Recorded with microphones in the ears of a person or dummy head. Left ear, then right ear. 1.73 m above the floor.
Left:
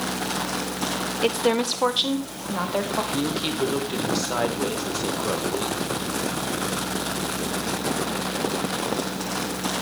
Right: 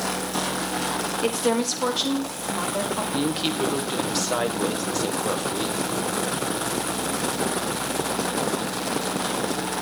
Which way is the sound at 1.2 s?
15° left (ahead or behind).